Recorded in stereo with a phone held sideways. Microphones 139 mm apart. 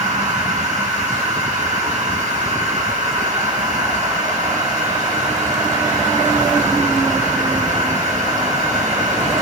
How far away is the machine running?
About 6 m.